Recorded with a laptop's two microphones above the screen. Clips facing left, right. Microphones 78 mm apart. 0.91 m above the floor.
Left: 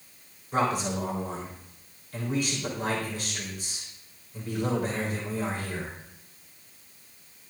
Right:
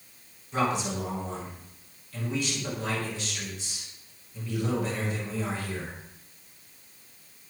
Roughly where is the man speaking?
Left.